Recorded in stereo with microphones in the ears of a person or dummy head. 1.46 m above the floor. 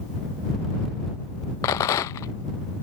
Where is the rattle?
15° left (ahead or behind).